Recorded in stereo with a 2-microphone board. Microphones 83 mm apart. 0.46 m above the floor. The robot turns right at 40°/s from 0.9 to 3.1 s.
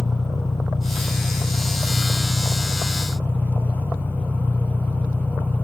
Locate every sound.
0.0 s an engine running: 70° left, 3 m; by 5.7 s 160° left, 3 m